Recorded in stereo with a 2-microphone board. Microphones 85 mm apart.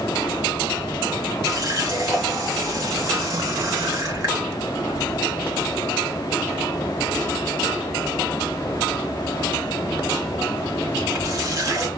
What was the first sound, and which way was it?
A running tap, 40° right (ahead or behind).